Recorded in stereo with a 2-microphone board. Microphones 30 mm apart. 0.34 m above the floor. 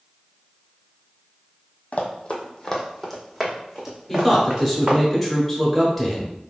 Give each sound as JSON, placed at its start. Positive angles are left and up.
{"t": 1.9, "sound": "running footsteps", "side_deg": 50, "distance_m": 0.9}
{"t": 4.1, "sound": "a man speaking", "side_deg": 0, "distance_m": 0.9}